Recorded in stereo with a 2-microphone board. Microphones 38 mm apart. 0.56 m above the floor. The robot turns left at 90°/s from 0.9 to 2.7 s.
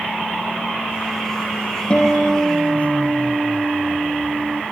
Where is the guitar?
30° left, 4.5 m; by 4.6 s 45° right, 4.5 m.